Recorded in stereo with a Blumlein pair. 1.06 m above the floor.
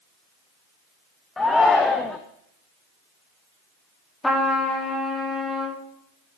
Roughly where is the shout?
Ahead.